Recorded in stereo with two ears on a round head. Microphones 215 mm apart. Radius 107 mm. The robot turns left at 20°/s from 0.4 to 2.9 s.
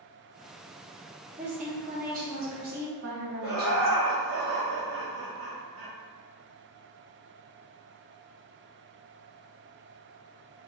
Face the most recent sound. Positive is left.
turn(degrees=-65)  # may be behind; listen again after turning